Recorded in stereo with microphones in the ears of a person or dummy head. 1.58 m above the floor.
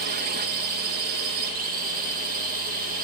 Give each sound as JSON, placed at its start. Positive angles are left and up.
{"t": 0.0, "sound": "a drone", "side_deg": -50}